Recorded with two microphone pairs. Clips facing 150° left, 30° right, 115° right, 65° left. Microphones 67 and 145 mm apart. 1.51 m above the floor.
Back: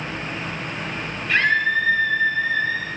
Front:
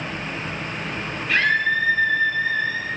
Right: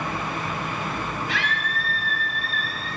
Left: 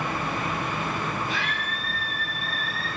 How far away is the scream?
About 9 m.